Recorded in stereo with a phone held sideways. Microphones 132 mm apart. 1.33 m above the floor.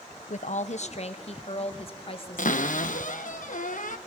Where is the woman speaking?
65° left (ahead or behind), 0.8 m; by 3.0 s 40° left (ahead or behind), 2.5 m.